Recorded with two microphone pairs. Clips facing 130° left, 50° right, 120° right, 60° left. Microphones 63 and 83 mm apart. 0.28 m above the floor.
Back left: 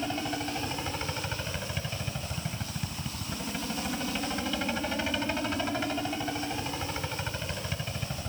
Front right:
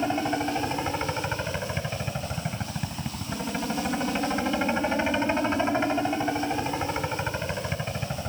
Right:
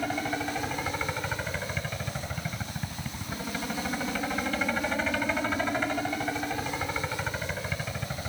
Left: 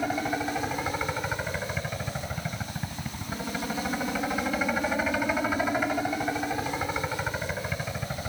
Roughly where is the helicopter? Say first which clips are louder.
Front right 6 dB, left 2 dB; ahead.